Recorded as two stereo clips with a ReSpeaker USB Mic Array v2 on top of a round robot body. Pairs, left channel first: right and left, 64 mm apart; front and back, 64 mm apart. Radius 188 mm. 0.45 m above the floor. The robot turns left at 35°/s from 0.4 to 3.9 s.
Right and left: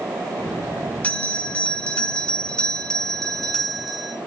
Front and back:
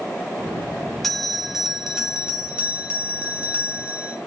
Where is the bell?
85° right, 1.2 m; by 4.2 s 175° left, 1.2 m.